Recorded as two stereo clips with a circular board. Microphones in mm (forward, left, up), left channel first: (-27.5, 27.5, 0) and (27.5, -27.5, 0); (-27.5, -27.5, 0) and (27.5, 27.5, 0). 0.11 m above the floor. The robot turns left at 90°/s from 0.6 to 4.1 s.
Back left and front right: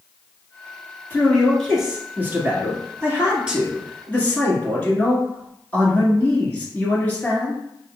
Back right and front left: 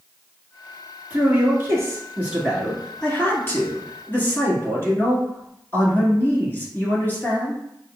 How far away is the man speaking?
About 1.4 m.